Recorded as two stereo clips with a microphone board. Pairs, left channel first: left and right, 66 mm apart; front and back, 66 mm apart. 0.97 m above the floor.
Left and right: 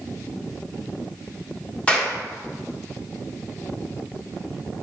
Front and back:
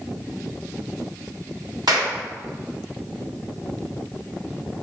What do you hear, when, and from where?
1.9 s a clap: 165° left, 1.6 m